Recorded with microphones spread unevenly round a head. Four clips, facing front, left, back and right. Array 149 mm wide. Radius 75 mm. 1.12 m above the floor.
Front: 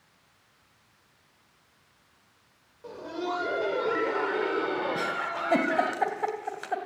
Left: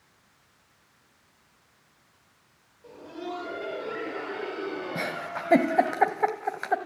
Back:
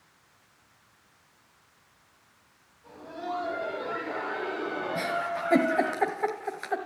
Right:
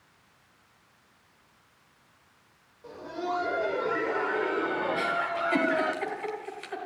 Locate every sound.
2.8 s laughter: 10° right, 5.5 m; by 6.0 s 50° right, 4.5 m
5.0 s a giggle: 90° left, 2.0 m